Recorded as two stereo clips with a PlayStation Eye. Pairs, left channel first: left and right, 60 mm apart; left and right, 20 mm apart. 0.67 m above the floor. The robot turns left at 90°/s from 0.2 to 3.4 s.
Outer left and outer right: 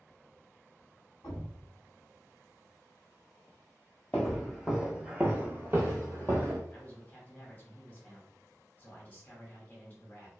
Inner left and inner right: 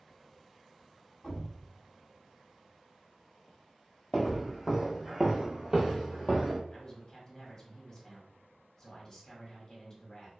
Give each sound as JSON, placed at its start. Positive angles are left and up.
{"t": 1.2, "sound": "a thud", "side_deg": 80, "distance_m": 1.2}
{"t": 4.1, "sound": "footsteps", "side_deg": 10, "distance_m": 0.9}
{"t": 6.7, "sound": "a man speaking", "side_deg": 25, "distance_m": 1.0}